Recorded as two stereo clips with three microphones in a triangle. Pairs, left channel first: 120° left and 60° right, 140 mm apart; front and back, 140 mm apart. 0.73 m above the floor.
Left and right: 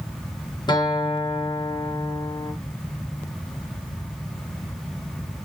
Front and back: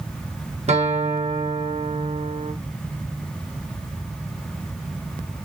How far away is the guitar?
About 0.7 m.